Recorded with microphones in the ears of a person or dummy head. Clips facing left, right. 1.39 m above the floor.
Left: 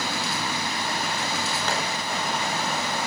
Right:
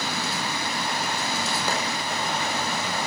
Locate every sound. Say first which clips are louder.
1.7 s tapping: even; 10° right (ahead or behind), 5.5 m